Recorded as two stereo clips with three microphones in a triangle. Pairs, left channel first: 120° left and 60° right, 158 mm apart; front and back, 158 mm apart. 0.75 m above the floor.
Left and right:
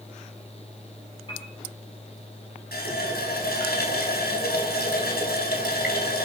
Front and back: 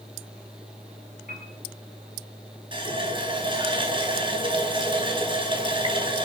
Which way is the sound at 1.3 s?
175° left.